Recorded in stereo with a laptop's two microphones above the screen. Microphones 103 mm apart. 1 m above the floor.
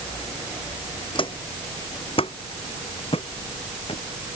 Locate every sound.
1.1 s footsteps: 55° left (ahead or behind); by 4.0 s 70° left (ahead or behind)